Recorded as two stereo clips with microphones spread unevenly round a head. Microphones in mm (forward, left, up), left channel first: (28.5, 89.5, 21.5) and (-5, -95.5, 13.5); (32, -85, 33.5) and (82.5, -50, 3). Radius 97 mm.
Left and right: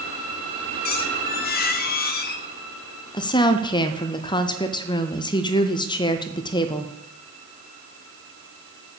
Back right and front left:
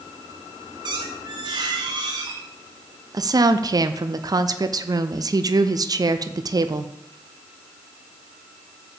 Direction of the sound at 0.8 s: 75° left.